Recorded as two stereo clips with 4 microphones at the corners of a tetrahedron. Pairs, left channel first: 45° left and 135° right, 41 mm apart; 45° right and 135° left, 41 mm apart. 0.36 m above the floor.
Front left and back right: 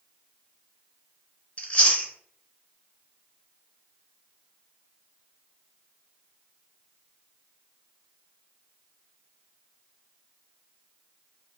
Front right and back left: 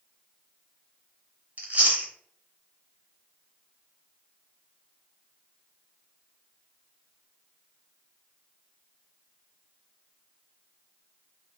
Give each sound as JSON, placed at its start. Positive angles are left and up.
{"t": 1.6, "sound": "chewing", "azimuth_deg": 95, "distance_m": 0.6}